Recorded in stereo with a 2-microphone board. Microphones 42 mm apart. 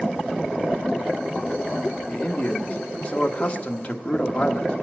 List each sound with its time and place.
2.1 s a man speaking: 25° left (ahead or behind), 1.5 m